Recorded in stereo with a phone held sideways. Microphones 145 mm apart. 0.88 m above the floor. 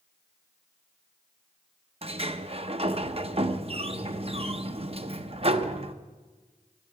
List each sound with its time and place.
2.0 s a sliding door: 40° right (ahead or behind), 0.6 m